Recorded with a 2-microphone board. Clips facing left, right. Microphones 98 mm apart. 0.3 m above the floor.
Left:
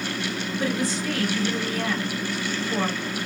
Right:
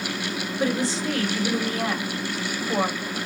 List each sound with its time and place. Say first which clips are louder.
0.6 s a woman speaking: right 2 dB; 30° right (ahead or behind), 1.4 m